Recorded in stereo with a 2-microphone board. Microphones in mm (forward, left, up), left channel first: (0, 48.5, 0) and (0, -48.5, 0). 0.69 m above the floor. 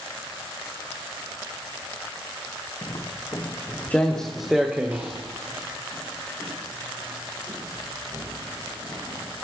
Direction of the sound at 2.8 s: 45° left (ahead or behind).